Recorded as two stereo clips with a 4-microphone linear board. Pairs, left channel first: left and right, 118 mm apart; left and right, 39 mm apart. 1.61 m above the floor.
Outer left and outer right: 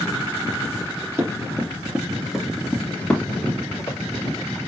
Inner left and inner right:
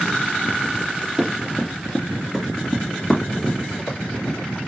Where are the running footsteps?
25° right (ahead or behind), 1.7 m; by 4.6 s 30° left (ahead or behind), 2.5 m.